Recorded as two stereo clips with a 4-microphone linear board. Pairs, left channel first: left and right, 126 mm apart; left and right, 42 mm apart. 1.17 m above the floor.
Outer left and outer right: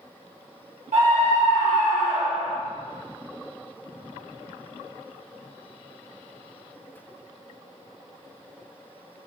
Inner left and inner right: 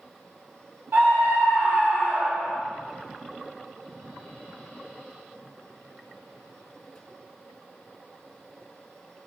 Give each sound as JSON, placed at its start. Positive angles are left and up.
{"t": 0.9, "sound": "a scream", "side_deg": -80, "distance_m": 1.6}